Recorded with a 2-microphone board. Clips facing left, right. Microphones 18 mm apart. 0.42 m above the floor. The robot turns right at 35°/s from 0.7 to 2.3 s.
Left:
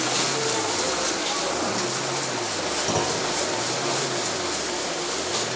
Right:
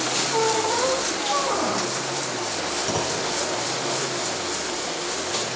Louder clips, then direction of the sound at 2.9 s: Left 2 dB; 5° left (ahead or behind).